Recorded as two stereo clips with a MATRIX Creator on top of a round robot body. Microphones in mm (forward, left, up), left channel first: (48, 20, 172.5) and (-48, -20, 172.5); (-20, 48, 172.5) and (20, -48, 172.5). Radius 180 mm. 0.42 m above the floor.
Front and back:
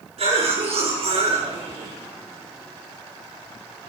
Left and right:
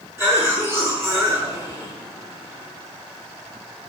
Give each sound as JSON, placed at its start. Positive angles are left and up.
{"t": 0.2, "sound": "a cough", "azimuth_deg": -135, "distance_m": 6.5}